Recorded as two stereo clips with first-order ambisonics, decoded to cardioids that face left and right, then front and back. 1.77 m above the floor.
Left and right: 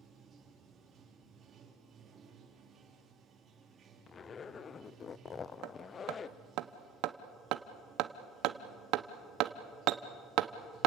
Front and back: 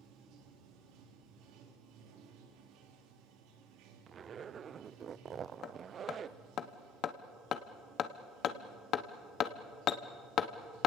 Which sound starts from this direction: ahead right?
Hammering, at 5.6 s.